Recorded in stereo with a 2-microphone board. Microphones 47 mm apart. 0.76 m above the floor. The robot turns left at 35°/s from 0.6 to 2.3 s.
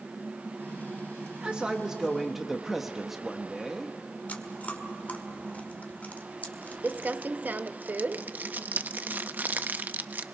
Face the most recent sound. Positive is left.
turn(degrees=-35)  # may be behind; listen again after turning